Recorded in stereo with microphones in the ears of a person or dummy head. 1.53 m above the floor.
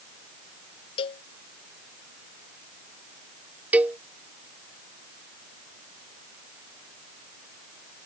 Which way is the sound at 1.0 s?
35° left (ahead or behind).